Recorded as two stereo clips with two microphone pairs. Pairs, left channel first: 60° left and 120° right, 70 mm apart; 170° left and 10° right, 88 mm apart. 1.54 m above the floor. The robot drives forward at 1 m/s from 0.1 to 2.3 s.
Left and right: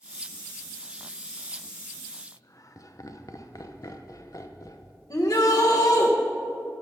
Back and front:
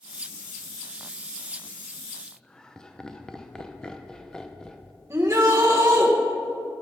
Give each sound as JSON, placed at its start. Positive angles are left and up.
{"t": 2.3, "sound": "laughter", "azimuth_deg": 85, "distance_m": 0.8}
{"t": 5.1, "sound": "a shout", "azimuth_deg": 45, "distance_m": 1.6}